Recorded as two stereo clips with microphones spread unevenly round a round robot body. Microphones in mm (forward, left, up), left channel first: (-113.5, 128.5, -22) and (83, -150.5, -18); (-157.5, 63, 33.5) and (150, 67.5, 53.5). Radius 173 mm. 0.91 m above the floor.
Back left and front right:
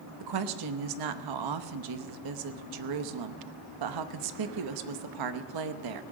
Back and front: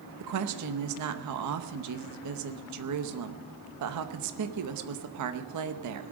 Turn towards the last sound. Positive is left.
turn(degrees=-35)